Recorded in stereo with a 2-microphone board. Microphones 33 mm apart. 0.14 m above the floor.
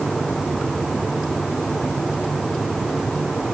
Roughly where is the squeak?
No squeak in this recording.